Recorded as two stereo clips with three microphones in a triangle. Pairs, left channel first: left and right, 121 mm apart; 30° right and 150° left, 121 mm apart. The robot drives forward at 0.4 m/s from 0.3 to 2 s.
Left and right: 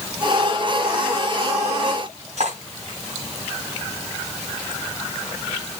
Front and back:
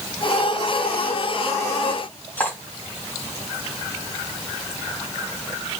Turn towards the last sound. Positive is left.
turn(degrees=-105)